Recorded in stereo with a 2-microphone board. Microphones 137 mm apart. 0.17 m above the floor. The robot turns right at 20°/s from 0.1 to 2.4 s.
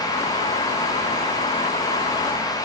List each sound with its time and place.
Only background noise.